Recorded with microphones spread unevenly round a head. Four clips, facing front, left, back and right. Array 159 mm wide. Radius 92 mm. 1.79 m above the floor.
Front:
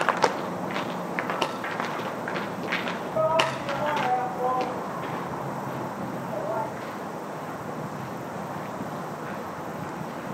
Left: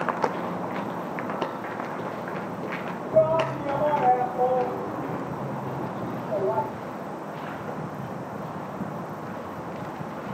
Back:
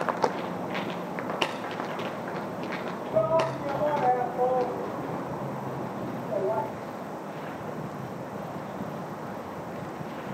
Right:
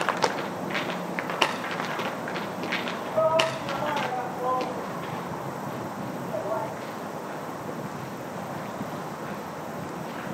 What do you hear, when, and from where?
3.1 s a shout: 135° left, 4 m